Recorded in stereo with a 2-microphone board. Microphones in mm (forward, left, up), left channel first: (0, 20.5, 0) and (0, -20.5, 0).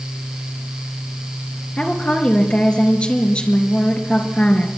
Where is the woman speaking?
25° left (ahead or behind), 3.5 m.